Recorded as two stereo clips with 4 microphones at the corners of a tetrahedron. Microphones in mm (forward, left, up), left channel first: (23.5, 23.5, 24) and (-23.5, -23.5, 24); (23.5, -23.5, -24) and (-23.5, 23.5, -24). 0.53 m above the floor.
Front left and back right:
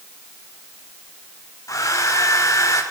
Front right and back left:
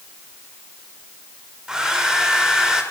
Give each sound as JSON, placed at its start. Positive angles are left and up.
{"t": 1.7, "sound": "a hair dryer", "azimuth_deg": 60, "distance_m": 1.8}